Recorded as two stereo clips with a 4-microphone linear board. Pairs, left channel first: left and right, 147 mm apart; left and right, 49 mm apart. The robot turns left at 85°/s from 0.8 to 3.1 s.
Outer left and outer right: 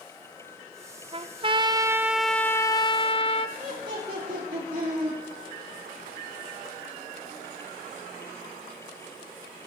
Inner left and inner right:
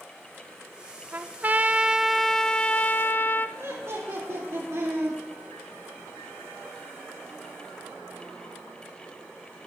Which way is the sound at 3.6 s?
65° right (ahead or behind).